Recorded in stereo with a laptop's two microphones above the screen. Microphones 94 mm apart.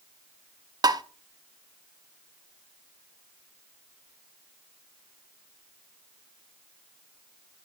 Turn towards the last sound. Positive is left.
turn(degrees=-40)  # may be behind; listen again after turning